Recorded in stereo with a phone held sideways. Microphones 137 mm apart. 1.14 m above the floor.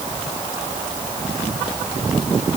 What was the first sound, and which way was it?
Only background noise.